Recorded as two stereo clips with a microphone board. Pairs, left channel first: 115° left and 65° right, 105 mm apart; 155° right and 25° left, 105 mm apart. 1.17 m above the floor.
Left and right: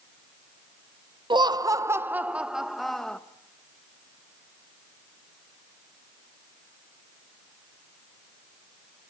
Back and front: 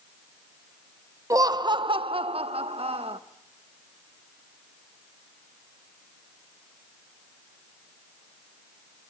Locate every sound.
1.3 s laughter: 30° right, 0.7 m; by 3.2 s 30° left, 1.2 m